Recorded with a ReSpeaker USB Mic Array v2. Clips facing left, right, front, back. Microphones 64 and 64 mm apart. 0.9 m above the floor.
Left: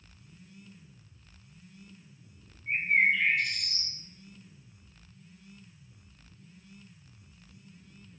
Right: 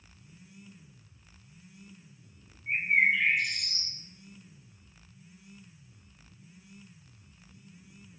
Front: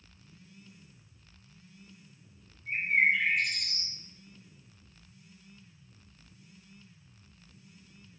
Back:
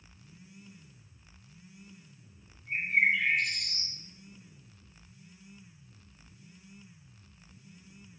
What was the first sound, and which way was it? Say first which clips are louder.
A bird: even, front 1 dB; 15° right.